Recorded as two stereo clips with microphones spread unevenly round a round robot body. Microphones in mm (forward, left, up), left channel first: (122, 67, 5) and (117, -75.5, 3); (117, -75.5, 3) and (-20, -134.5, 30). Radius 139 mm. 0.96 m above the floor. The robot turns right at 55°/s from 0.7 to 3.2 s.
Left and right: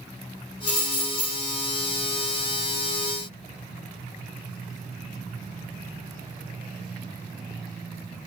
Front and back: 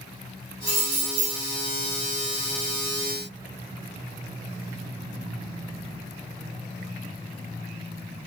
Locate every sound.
0.7 s keys jangling: 155° left, 0.8 m; by 1.4 s 170° right, 0.8 m